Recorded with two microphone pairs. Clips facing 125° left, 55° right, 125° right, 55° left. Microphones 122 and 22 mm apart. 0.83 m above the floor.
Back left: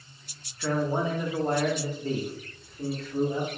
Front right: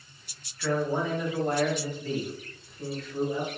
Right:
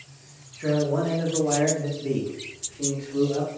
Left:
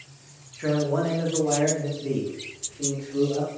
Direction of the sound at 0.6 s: 75° left.